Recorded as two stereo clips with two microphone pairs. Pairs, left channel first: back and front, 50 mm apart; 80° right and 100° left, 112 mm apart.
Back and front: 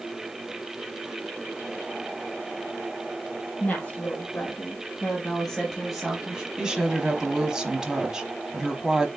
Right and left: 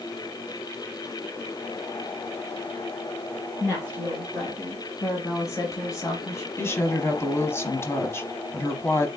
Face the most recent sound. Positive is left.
turn(degrees=-60)